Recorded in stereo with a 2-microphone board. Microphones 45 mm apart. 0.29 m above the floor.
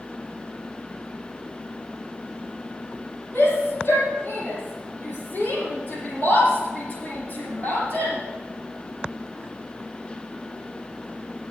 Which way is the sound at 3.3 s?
45° left (ahead or behind).